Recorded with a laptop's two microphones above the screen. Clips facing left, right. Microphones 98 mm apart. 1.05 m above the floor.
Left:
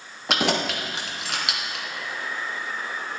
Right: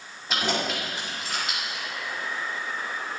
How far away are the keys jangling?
About 1.3 m.